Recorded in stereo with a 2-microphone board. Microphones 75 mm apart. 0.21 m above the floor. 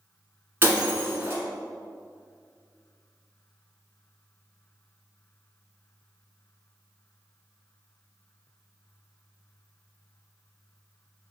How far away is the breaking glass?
About 1.3 m.